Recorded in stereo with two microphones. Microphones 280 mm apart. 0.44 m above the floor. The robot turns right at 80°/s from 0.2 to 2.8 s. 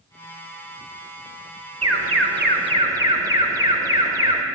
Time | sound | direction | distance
1.8 | an alarm | 95° right | 0.7 m